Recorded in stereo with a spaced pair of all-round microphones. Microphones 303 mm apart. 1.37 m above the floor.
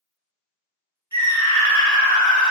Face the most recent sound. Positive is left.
turn(degrees=-20)  # may be behind; listen again after turning